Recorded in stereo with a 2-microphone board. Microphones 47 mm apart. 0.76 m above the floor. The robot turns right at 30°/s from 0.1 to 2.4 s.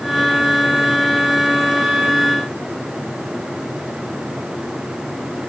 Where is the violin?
I don't hear a violin.